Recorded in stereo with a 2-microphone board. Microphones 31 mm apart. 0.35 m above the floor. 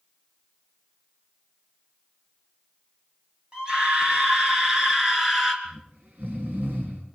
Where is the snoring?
60° right (ahead or behind), 5 m.